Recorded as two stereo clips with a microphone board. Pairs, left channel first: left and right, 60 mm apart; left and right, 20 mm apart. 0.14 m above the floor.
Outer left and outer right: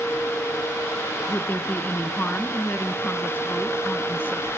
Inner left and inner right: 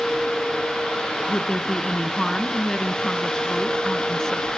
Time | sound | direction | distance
1.3 | a woman speaking | 30° left (ahead or behind) | 1.6 m